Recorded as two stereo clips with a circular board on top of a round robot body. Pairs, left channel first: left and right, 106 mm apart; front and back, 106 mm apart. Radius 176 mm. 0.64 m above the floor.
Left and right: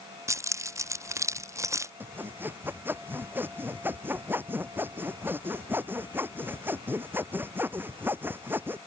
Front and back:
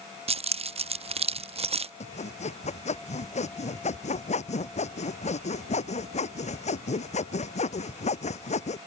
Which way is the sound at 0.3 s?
155° right.